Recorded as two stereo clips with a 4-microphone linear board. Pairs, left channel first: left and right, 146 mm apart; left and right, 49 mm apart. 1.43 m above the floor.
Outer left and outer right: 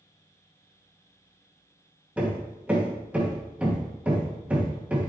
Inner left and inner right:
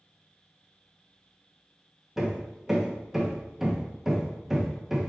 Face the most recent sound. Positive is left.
turn(degrees=-10)  # may be behind; listen again after turning